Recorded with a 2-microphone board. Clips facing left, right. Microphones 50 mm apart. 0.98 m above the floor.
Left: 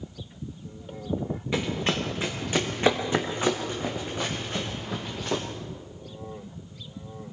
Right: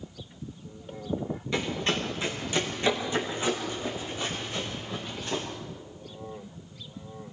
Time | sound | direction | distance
1.5 | running footsteps | 15° left (ahead or behind) | 3.5 m